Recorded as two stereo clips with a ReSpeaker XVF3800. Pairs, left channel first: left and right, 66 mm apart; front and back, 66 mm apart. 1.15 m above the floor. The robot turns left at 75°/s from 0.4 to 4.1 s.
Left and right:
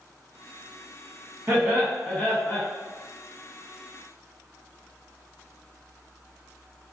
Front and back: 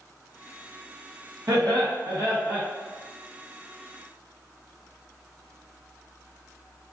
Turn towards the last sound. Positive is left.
turn(degrees=20)